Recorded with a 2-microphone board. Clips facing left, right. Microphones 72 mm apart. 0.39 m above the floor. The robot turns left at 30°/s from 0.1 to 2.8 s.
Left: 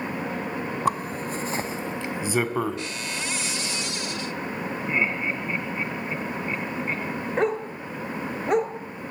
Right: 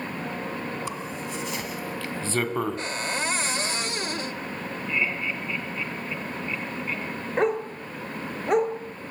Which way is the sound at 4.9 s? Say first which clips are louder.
Left 2 dB; 35° left (ahead or behind).